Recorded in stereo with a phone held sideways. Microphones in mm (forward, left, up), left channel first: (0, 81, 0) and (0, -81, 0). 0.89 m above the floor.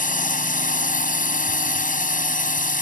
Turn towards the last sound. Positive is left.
turn(degrees=55)  # may be behind; listen again after turning